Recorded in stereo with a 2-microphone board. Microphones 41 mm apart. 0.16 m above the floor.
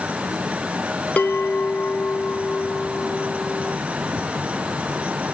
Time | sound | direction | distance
1.2 | a bell | 35° left (ahead or behind) | ?